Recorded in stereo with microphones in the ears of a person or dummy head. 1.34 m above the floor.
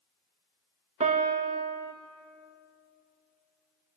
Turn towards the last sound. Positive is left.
turn(degrees=-35)  # may be behind; listen again after turning